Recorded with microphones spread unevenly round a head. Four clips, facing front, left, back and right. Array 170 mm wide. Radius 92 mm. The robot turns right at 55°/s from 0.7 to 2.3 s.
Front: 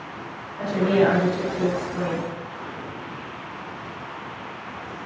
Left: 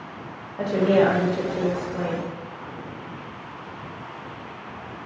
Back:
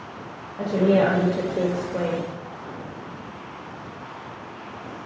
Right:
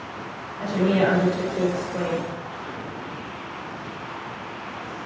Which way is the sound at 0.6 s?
120° left.